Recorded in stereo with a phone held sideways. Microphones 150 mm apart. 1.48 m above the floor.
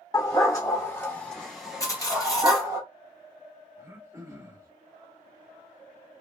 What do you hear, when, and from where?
0.1 s a dog barking: 25° left (ahead or behind), 1.3 m; by 2.8 s 25° right (ahead or behind), 1.1 m
1.8 s cutlery clinking: 20° left (ahead or behind), 0.8 m
3.8 s throat clearing: 20° right (ahead or behind), 1.1 m